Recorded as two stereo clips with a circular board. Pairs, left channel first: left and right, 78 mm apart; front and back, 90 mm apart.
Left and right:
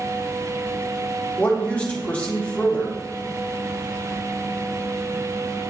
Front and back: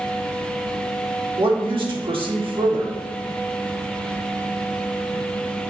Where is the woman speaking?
165° left, 1.9 m.